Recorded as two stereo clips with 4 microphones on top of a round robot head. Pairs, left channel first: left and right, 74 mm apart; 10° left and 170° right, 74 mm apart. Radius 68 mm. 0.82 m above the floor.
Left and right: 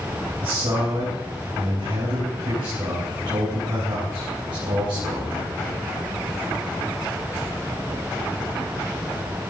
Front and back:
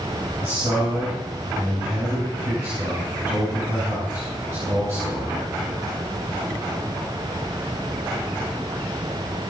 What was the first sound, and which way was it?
A man speaking, 110° right.